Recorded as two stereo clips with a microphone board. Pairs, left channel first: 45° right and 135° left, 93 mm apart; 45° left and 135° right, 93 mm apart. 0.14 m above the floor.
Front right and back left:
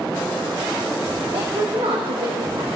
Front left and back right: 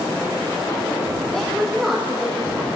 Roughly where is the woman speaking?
Behind left.